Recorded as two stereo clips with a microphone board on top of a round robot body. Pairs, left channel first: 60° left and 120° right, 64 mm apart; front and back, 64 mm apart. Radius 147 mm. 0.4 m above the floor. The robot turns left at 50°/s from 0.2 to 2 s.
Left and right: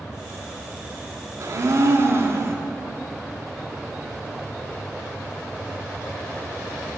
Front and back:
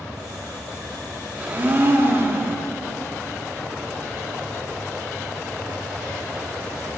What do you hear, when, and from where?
1.4 s a blender: 110° right, 1.7 m; by 2.5 s 140° right, 1.7 m